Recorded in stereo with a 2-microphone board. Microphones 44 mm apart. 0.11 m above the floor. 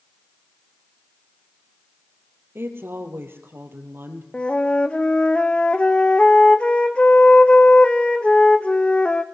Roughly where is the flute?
Left.